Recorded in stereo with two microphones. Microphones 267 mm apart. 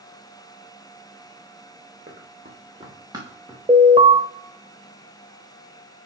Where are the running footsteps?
30° right (ahead or behind), 2.5 m; by 3.6 s 5° right (ahead or behind), 3 m.